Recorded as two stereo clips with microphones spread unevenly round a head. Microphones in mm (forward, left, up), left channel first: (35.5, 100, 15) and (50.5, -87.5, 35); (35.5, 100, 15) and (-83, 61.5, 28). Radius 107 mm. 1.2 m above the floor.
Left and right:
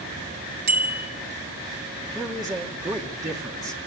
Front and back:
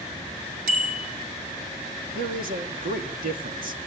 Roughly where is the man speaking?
Behind.